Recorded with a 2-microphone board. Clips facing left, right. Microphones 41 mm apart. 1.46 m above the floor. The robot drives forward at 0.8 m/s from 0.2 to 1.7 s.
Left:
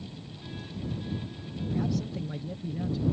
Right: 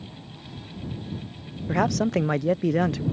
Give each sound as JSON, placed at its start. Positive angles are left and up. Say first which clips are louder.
{"t": 1.7, "sound": "a man speaking", "louder": "right 9 dB", "side_deg": -80}